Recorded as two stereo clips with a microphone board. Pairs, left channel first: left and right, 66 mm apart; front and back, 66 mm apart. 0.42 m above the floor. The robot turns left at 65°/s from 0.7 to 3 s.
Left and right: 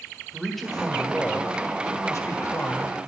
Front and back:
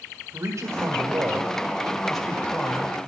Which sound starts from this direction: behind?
A man speaking, at 0.3 s.